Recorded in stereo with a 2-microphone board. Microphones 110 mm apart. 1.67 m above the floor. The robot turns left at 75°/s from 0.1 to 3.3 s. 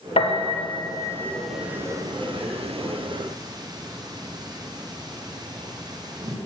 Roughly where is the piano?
Left.